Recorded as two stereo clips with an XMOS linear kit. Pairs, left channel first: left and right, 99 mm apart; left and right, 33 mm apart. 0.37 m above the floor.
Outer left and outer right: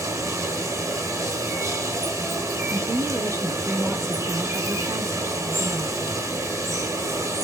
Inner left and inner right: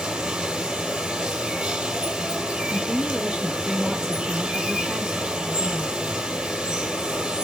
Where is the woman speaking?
25° right (ahead or behind), 0.9 m.